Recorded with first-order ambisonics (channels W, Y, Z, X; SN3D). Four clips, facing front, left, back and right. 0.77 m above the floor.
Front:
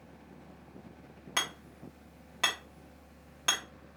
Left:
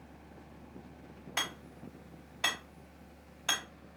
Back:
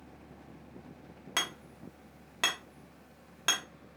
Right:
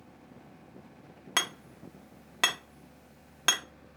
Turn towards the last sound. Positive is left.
turn(degrees=-100)